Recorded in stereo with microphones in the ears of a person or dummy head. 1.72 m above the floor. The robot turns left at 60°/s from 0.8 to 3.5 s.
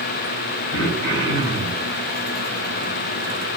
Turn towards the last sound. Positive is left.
turn(degrees=-85)